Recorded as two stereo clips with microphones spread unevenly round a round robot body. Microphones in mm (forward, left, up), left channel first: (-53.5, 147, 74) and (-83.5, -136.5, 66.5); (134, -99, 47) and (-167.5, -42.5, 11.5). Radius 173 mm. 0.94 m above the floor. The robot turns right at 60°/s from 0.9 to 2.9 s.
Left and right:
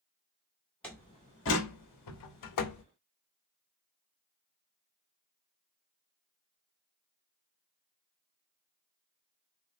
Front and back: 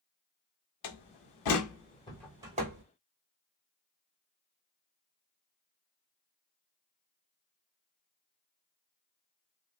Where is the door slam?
5° right, 1.8 m; by 2.8 s 115° left, 1.8 m.